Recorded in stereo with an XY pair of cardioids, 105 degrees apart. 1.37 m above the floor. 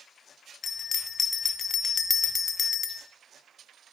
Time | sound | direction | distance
0.6 | a bell | 35° left | 0.6 m